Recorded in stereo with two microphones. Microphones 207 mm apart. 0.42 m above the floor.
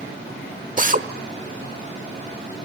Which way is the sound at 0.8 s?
40° right (ahead or behind).